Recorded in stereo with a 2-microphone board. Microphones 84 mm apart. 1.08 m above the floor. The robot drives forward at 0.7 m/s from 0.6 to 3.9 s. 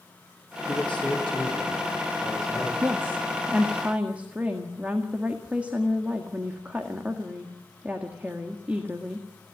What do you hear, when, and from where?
0.7 s a man speaking: 20° left (ahead or behind), 3.5 m; by 2.7 s 15° left (ahead or behind), 5 m
2.8 s a woman speaking: 30° right (ahead or behind), 1.0 m; by 9.3 s 15° right (ahead or behind), 1.7 m